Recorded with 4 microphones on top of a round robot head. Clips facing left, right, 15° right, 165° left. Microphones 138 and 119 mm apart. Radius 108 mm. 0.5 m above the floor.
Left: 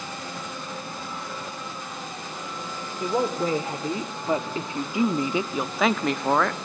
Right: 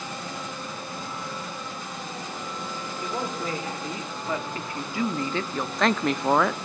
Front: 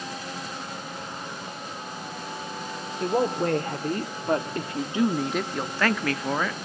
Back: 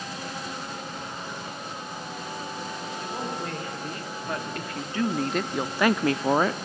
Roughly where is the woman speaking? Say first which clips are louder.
Left 7 dB, front 11 dB; ahead left.